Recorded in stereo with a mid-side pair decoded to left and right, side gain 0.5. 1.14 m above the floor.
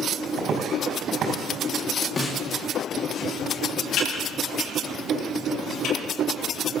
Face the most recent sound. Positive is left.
turn(degrees=70)